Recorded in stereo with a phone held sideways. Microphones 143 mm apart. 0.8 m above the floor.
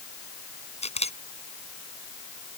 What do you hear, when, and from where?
0.8 s a camera shutter: 50° left (ahead or behind)